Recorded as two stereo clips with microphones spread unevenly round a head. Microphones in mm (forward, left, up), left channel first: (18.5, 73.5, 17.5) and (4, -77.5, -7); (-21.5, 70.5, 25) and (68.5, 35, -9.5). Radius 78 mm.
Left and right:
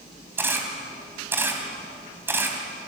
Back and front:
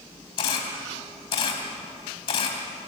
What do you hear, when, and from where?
0.4 s a camera shutter: 175° right, 3 m